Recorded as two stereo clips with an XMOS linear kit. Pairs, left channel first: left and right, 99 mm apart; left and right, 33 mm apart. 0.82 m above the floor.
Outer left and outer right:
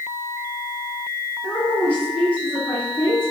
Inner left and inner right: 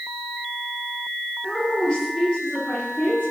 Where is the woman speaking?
45° left (ahead or behind), 1.3 m; by 3.3 s 60° left (ahead or behind), 1.5 m.